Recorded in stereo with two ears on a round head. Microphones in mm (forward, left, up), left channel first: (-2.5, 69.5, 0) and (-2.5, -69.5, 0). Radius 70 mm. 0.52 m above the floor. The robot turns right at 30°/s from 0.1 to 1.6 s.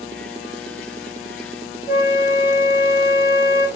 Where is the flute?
20° right (ahead or behind), 0.7 m.